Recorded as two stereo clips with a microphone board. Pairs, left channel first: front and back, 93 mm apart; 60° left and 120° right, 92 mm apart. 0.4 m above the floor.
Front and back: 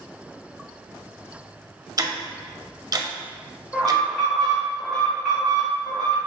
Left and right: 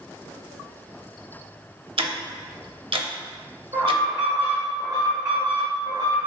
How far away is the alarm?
About 1.6 m.